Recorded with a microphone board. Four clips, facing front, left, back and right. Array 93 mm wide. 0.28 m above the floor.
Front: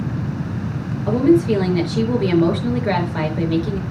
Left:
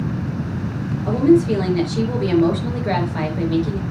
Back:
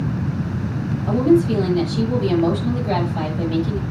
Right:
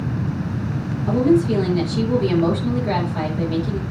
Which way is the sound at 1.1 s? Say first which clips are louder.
Left 2 dB, front 1 dB; 25° left.